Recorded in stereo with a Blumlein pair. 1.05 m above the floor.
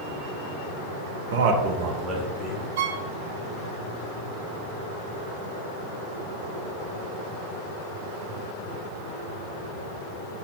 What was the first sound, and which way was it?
A man speaking, 60° right.